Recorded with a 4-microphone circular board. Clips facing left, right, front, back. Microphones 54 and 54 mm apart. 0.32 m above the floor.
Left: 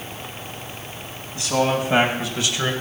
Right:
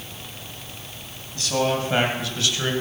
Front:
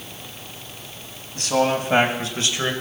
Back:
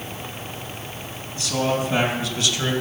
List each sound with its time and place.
1.4 s a man speaking: 20° left, 2.5 m; by 2.7 s 40° left, 1.5 m